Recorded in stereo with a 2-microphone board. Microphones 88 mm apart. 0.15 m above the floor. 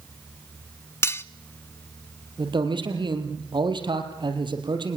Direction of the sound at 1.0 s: 35° left (ahead or behind).